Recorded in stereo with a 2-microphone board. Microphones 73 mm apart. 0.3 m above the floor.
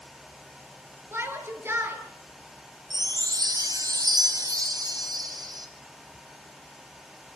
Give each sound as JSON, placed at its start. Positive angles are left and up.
{"t": 1.1, "sound": "a shout", "side_deg": -35, "distance_m": 6.5}
{"t": 2.9, "sound": "a chime", "side_deg": -65, "distance_m": 3.5}